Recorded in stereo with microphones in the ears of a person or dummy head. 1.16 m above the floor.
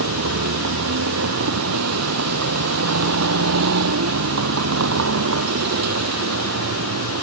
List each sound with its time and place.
0.0 s a vehicle: 85° right